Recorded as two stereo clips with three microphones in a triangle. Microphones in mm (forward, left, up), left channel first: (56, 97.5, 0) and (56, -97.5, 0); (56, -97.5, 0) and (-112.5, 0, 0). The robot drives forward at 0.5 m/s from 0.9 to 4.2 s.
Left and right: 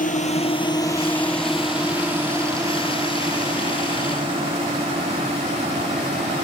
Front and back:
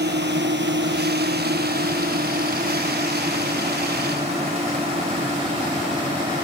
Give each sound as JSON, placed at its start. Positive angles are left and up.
{"t": 0.0, "sound": "a drone", "azimuth_deg": 130}